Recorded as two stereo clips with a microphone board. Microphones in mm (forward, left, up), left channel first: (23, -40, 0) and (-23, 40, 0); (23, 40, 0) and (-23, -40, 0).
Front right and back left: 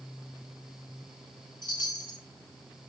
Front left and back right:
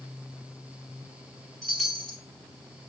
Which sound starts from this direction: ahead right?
A chime, at 1.6 s.